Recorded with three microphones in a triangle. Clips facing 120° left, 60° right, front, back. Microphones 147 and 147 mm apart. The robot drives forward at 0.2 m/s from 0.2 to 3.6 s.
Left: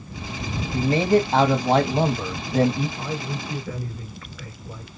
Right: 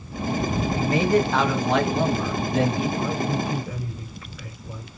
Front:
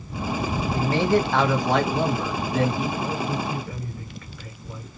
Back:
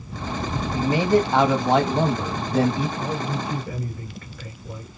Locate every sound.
0.7 s a man speaking: 120° left, 1.0 m; by 2.9 s 145° left, 1.2 m
3.0 s a man speaking: 135° right, 2.5 m